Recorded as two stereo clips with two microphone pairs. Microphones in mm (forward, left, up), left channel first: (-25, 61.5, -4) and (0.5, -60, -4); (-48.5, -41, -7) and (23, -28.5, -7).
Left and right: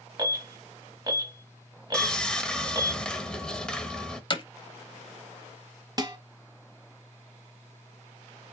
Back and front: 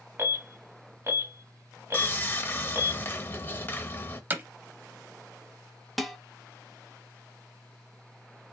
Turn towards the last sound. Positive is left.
turn(degrees=-80)